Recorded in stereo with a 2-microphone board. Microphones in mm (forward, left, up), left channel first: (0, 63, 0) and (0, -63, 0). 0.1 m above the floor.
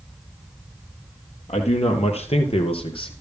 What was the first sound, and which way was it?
A man speaking, 60° left (ahead or behind).